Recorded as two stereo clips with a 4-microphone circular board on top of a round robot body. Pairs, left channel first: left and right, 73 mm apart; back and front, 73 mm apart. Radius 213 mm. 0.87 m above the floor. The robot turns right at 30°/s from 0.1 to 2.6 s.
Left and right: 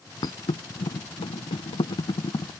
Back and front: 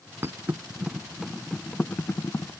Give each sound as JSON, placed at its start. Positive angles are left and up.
{"t": 0.2, "sound": "a thud", "azimuth_deg": 60}